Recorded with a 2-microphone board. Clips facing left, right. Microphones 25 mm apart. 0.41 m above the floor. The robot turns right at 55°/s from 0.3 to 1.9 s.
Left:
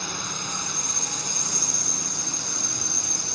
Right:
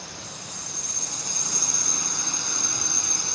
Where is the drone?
110° left; by 3.4 s 165° right.